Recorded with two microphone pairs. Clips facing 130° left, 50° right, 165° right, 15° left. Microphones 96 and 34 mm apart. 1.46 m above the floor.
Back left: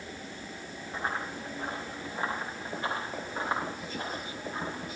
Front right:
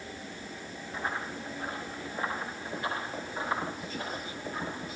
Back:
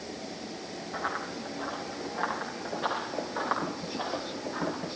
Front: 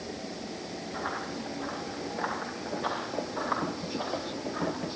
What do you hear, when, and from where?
0.9 s running footsteps: 175° right, 9 m; by 5.0 s 170° right, 11.5 m